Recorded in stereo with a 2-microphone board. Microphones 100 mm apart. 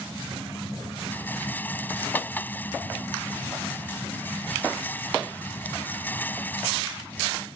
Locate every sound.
1.1 s a rattle: 20° left (ahead or behind)